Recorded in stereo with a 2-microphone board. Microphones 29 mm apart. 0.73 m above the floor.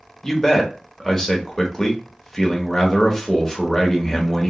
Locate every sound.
0.2 s a man speaking: 15° left (ahead or behind), 1.0 m